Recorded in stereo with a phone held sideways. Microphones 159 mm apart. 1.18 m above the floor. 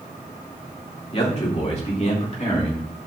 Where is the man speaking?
40° left (ahead or behind), 2.5 m; by 2.9 s 50° left (ahead or behind), 3.5 m.